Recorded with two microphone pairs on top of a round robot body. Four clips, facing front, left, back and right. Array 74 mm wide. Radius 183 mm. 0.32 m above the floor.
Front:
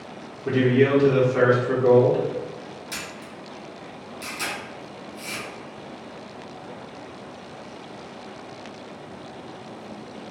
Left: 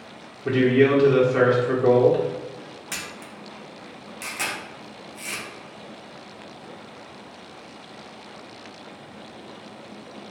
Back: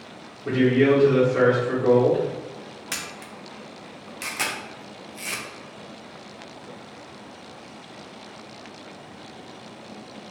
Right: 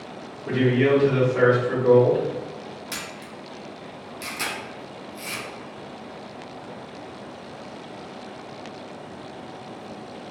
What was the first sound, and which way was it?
A man speaking, 85° left.